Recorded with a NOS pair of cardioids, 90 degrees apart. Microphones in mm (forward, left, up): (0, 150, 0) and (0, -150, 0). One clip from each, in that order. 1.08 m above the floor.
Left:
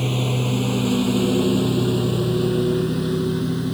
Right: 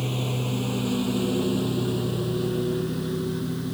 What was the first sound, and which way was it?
A lawn mower, 40° left.